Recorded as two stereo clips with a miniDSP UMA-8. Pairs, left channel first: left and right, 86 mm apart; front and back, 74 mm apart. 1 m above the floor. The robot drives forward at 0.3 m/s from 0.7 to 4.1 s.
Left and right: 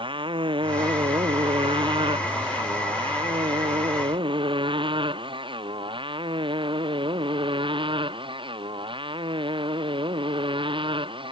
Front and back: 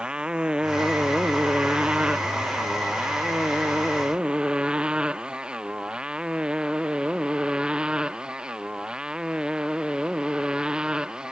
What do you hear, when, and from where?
0.0 s a motorcycle: 100° right